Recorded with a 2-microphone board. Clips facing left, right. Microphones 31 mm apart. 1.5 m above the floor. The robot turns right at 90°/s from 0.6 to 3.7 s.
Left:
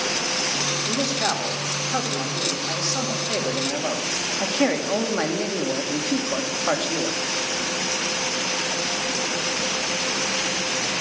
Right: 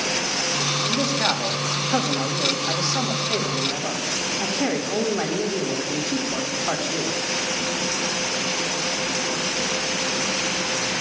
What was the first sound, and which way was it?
A man speaking, 170° left.